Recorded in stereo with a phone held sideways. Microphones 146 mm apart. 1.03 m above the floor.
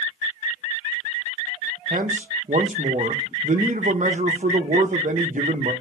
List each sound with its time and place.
1.9 s a man speaking: 60° right (ahead or behind), 0.7 m